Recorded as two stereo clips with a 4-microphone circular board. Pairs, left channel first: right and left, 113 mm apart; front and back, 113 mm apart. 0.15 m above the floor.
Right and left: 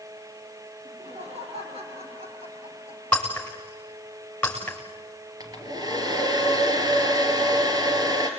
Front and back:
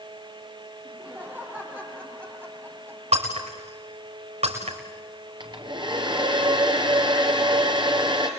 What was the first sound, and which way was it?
Laughter, 105° left.